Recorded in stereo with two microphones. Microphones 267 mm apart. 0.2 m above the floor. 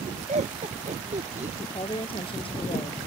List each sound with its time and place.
0.3 s laughter: 25° right (ahead or behind)
1.6 s a woman speaking: 20° left (ahead or behind)